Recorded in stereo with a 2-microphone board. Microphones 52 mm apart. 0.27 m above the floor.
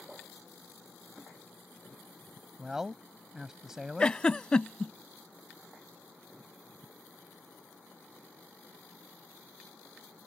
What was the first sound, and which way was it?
A man speaking, 10° right (ahead or behind).